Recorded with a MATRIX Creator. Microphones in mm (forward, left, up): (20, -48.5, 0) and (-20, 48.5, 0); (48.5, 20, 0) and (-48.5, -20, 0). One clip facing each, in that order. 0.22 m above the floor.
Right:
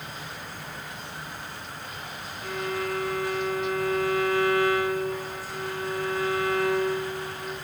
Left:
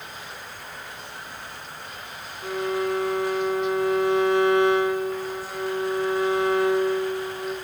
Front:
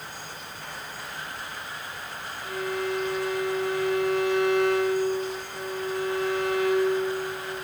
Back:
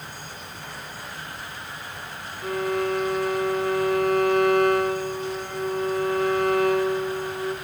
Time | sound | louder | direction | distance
2.4 | a violin | left 5 dB, back 5 dB | 175° left | 1.1 m